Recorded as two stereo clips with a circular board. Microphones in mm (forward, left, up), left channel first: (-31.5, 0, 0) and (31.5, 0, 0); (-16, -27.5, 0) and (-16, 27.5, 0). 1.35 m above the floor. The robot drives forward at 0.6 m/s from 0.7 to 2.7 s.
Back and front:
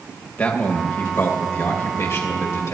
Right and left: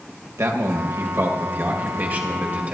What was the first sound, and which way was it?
A man speaking, 115° left.